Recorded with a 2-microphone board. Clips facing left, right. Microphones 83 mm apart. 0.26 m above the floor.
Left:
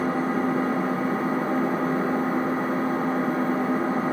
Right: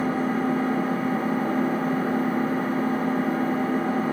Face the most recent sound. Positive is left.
turn(degrees=25)  # may be behind; listen again after turning